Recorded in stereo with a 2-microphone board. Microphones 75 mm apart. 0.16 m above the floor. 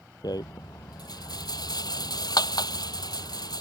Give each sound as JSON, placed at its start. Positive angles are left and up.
{"t": 0.2, "sound": "a rattle", "side_deg": 60}